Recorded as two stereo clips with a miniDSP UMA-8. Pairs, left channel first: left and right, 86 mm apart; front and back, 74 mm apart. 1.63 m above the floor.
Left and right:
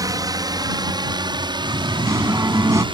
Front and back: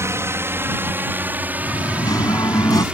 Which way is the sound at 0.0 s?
130° right.